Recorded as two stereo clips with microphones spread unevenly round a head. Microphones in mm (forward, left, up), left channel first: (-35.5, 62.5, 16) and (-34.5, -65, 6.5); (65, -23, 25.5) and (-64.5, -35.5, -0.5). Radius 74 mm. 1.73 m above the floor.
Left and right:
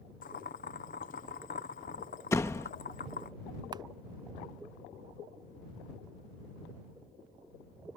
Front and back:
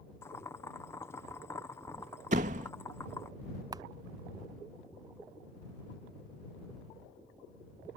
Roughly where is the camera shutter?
Behind right.